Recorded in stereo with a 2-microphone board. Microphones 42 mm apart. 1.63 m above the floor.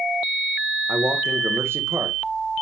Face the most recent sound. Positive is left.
turn(degrees=-85)